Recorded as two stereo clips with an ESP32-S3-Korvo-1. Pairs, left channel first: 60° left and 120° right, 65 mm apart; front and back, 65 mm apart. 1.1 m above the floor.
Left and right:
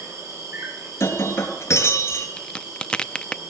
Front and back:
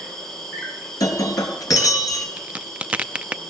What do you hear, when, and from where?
0.0 s an insect: 85° right, 7.5 m
1.0 s breaking glass: 15° left, 3.5 m
2.4 s a crack: 125° left, 0.6 m